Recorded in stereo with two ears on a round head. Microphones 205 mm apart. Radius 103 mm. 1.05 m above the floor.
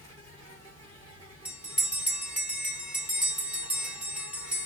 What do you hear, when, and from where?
0.0 s an insect: 30° right (ahead or behind), 4.5 m
1.4 s a bell: 5° right (ahead or behind), 1.1 m